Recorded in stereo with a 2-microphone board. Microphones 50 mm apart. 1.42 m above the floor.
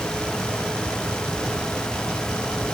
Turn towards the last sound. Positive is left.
No sound to turn to.